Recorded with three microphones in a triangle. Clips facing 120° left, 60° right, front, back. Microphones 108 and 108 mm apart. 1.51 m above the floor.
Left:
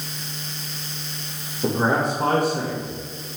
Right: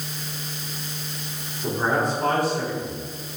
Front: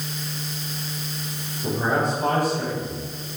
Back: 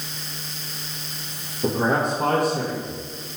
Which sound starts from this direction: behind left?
A man speaking, at 1.6 s.